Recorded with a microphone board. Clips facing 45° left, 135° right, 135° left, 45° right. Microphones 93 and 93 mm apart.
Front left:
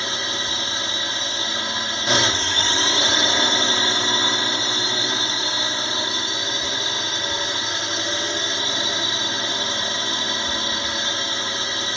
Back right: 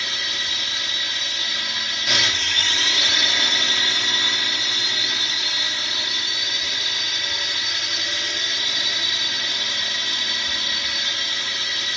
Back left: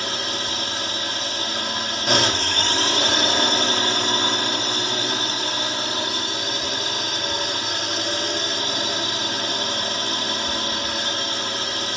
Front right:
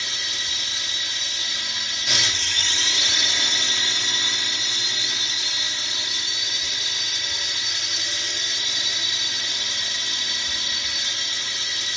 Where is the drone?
100° left.